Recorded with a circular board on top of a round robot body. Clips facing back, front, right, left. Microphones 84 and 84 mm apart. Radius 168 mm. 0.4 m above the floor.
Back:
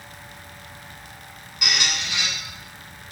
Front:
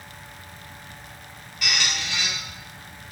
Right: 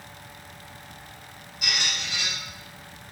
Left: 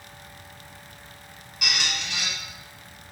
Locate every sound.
1.6 s a squeak: 110° left, 1.3 m